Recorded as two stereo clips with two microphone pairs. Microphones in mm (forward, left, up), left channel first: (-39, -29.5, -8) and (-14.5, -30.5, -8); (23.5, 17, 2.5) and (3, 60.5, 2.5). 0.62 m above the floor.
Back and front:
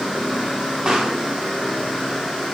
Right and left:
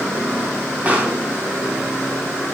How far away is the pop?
About 3 m.